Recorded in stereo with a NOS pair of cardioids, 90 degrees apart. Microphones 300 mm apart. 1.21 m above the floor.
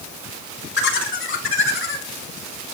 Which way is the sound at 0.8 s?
40° left.